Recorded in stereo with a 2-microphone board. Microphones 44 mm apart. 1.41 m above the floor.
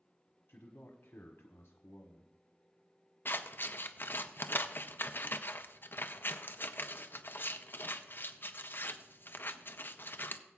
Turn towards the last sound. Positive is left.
turn(degrees=50)  # may be behind; listen again after turning